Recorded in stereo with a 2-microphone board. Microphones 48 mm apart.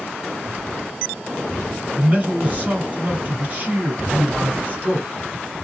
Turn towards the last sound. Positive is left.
turn(degrees=-30)  # may be behind; listen again after turning